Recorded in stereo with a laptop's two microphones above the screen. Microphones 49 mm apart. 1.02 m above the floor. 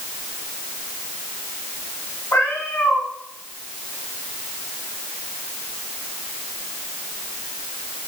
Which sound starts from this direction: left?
A cat meowing, at 2.3 s.